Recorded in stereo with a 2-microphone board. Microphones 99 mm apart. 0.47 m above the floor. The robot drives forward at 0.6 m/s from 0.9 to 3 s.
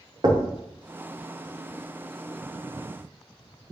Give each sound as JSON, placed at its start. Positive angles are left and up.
{"t": 0.2, "sound": "knocking", "side_deg": -40, "distance_m": 0.5}